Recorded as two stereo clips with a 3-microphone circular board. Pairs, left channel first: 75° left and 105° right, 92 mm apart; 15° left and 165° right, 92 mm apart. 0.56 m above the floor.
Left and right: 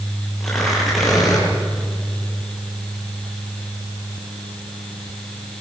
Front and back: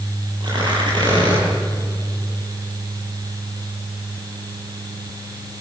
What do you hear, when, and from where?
0.4 s tearing paper: 165° left, 9 m